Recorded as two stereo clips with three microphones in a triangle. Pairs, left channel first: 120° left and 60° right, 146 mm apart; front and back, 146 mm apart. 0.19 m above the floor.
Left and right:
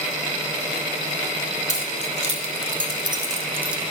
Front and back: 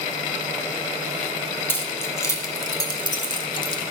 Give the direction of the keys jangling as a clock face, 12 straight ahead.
2 o'clock.